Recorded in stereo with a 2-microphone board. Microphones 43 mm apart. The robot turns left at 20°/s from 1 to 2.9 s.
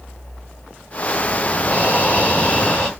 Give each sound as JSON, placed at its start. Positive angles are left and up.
{"t": 1.6, "sound": "breathing", "side_deg": 45, "distance_m": 3.0}